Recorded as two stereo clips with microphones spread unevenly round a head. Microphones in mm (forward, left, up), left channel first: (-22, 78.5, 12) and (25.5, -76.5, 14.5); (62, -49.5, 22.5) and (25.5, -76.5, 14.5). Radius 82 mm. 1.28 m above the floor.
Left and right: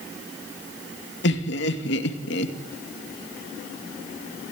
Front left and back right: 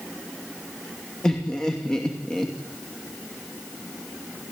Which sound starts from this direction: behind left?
Laughter, at 1.2 s.